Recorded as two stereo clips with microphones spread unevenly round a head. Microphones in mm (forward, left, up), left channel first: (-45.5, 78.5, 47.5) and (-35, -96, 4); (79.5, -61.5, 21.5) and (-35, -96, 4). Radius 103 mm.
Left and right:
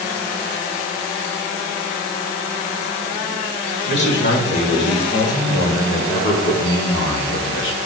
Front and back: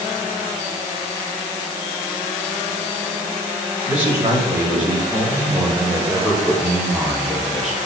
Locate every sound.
3.9 s a man speaking: 115° left, 5 m; by 7.8 s 105° left, 2.5 m